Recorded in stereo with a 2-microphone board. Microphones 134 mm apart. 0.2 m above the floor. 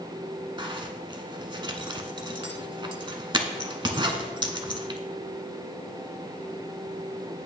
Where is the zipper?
35° right (ahead or behind), 0.8 m.